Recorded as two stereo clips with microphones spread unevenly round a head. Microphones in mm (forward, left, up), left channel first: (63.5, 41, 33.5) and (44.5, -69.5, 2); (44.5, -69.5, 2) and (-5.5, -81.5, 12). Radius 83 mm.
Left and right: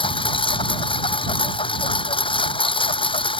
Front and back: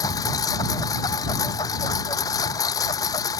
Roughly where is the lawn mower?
Ahead left.